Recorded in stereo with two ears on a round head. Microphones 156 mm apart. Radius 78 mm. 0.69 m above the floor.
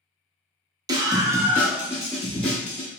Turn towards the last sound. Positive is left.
turn(degrees=5)  # may be behind; listen again after turning